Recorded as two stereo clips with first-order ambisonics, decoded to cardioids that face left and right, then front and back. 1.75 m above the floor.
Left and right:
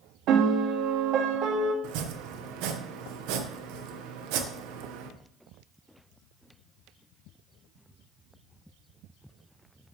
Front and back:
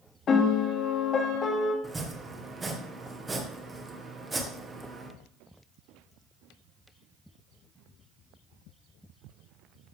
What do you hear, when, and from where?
0.3 s a piano: 55° right, 1.8 m
1.8 s chopping: 100° right, 1.5 m